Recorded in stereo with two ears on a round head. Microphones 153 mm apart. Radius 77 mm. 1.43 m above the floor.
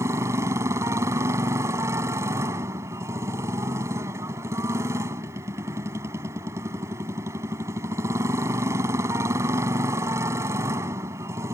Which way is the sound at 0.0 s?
15° right (ahead or behind).